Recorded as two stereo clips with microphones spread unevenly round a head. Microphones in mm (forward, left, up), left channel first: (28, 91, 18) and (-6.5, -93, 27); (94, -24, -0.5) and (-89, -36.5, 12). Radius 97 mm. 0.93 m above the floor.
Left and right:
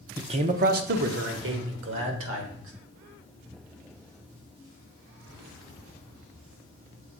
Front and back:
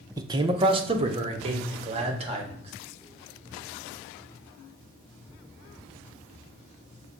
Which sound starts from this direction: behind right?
A man speaking, at 0.2 s.